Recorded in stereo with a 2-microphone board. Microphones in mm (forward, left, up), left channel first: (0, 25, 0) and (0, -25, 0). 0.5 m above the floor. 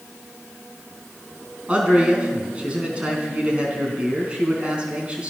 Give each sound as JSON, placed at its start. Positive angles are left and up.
{"t": 1.7, "sound": "a man speaking", "side_deg": -20, "distance_m": 4.5}